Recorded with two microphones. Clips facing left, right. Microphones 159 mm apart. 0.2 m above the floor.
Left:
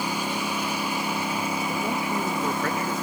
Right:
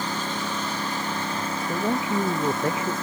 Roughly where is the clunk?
No clunk in this recording.